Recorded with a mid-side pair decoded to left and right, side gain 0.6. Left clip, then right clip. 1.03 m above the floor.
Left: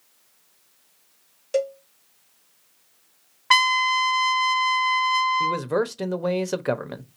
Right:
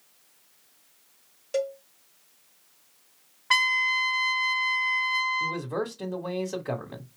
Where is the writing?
No writing in this recording.